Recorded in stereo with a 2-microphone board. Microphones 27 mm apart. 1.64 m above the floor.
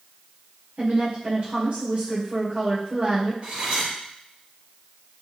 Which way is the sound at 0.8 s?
55° right (ahead or behind).